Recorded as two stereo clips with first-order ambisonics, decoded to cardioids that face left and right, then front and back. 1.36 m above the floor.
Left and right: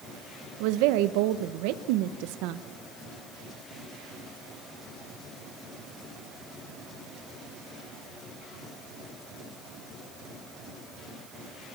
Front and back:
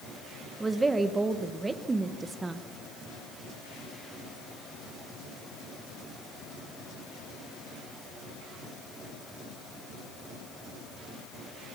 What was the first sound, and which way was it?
A woman speaking, 100° right.